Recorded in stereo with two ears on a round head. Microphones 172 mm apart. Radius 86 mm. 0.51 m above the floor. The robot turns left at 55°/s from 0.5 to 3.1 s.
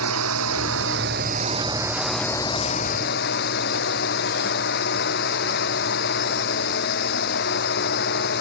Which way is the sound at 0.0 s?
90° right.